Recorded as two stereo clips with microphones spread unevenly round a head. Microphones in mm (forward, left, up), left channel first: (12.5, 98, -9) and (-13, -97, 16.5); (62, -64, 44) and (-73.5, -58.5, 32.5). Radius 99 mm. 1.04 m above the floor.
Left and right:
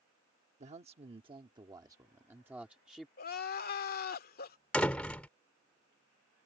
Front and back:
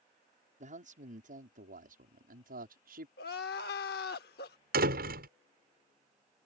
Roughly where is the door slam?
Behind.